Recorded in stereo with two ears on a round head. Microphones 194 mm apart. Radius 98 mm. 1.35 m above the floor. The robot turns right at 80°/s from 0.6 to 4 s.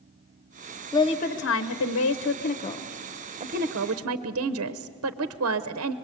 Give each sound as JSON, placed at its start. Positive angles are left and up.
{"t": 0.9, "sound": "a woman speaking", "azimuth_deg": 15, "distance_m": 0.8}